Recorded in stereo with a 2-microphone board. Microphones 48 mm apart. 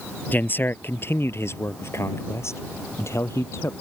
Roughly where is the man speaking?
Left.